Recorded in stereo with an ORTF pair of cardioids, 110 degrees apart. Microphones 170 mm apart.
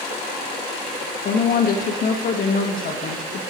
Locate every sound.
1.2 s a woman speaking: 60° left, 1.1 m